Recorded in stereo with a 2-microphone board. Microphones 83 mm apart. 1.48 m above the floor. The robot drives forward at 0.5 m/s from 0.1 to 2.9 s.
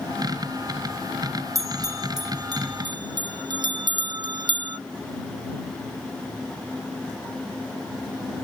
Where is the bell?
45° right (ahead or behind); by 4.8 s 65° right (ahead or behind).